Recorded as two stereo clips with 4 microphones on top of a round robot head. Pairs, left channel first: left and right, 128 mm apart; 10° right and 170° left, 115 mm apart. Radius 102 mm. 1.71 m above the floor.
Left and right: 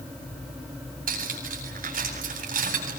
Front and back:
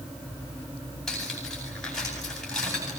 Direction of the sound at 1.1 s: 100° right.